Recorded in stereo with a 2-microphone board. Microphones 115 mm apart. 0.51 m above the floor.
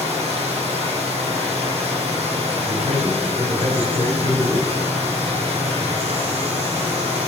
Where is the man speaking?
70° right (ahead or behind), 3.5 m.